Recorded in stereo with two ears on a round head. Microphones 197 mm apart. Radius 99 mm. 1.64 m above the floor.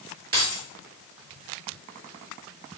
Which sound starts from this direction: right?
Keys jangling, at 0.3 s.